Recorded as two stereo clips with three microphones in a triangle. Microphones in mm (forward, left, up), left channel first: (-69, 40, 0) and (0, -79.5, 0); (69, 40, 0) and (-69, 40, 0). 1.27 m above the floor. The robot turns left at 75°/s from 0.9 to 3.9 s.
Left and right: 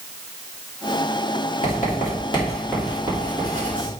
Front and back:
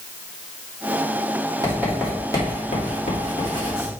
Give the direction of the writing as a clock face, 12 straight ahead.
8 o'clock.